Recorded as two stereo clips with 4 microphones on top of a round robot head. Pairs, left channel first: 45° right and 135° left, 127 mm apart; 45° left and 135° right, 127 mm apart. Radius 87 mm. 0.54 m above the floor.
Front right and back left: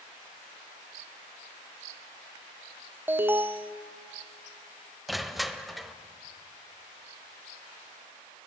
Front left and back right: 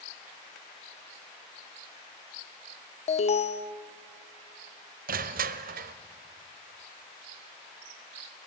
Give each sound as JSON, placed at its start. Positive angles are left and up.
{"t": 3.1, "sound": "an alarm", "azimuth_deg": 60, "distance_m": 0.9}
{"t": 5.1, "sound": "crushing", "azimuth_deg": -135, "distance_m": 0.9}